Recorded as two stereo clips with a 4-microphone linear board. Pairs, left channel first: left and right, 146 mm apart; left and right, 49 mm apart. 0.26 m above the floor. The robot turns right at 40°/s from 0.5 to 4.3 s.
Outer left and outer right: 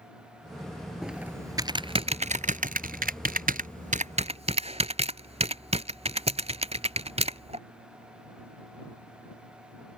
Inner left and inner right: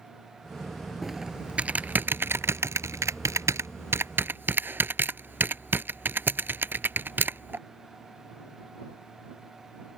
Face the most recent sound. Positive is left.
turn(degrees=-45)  # may be behind; listen again after turning